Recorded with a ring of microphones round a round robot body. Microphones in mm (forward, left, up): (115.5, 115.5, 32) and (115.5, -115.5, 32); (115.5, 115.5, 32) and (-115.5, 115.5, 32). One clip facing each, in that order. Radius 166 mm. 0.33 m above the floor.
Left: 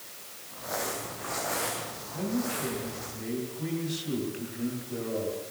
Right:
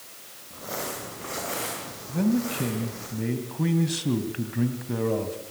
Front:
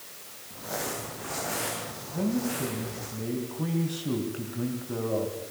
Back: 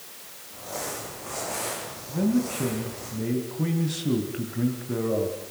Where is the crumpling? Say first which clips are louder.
Right 1 dB, front 1 dB; 35° right, 9.5 m.